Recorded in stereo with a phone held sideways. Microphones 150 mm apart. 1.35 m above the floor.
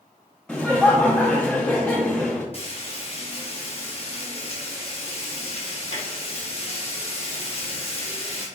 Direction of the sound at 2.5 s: 40° left (ahead or behind).